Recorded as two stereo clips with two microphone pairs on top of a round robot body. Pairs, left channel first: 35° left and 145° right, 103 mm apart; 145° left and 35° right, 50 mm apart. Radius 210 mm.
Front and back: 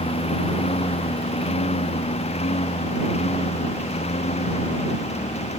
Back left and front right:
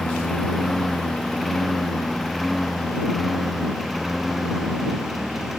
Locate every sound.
0.0 s a lawn mower: 60° left; by 5.6 s 50° left